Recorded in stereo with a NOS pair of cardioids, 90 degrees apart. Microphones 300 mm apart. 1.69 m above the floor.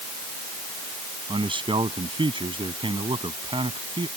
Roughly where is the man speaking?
Ahead.